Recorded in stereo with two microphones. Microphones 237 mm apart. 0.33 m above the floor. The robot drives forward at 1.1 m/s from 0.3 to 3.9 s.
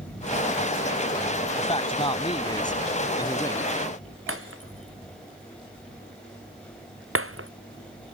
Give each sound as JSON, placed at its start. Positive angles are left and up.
{"t": 1.6, "sound": "a man speaking", "side_deg": 25}
{"t": 4.3, "sound": "breaking glass", "side_deg": -65}